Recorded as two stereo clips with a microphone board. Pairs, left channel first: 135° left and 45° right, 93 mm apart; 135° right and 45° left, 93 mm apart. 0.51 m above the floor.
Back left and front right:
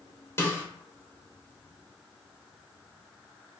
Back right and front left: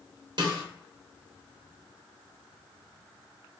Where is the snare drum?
75° left, 0.9 m.